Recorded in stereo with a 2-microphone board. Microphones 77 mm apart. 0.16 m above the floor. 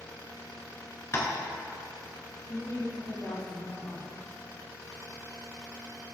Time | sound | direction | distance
1.1 | tapping | 35° left (ahead or behind) | 1.2 m
2.5 | a woman speaking | 50° left (ahead or behind) | 2.5 m